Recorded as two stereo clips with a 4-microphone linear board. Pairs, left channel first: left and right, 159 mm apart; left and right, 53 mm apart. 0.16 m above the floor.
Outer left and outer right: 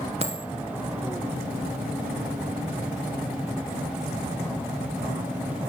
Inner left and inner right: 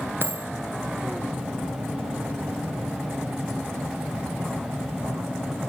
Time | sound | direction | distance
0.2 | a dropped coin | 40° right (ahead or behind) | 1.1 m